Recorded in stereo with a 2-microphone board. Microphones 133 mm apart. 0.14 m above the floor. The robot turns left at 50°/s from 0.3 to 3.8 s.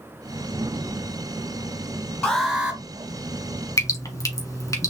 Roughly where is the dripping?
Left.